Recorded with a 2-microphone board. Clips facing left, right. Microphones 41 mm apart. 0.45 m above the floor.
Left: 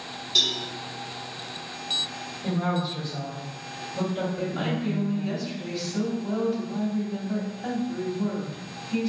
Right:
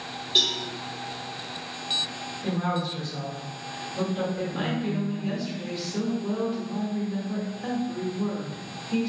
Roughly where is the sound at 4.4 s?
Right.